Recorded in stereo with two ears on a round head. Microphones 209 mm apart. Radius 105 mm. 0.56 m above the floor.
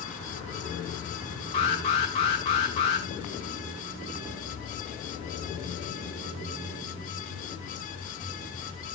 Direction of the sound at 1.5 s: 25° left (ahead or behind).